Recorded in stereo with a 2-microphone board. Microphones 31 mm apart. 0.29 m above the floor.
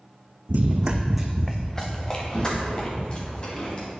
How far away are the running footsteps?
About 0.7 m.